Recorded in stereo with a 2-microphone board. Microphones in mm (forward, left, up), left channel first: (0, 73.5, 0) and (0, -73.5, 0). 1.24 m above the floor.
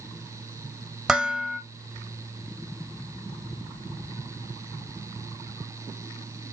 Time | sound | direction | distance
1.1 | dishes clattering | 5° right (ahead or behind) | 1.4 m